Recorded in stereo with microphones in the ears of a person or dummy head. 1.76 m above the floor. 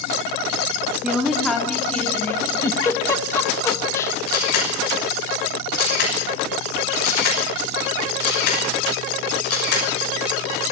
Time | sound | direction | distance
1.0 | a woman speaking | 5° right (ahead or behind) | 3.5 m
2.6 | a giggle | 20° left (ahead or behind) | 1.9 m
4.3 | a camera shutter | 65° left (ahead or behind) | 6.5 m